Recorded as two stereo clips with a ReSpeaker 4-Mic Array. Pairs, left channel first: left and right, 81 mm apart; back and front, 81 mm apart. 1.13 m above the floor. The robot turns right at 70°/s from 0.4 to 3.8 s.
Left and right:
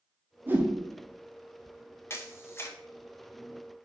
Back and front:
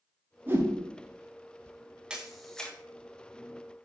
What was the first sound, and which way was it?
A whoosh, 45° right.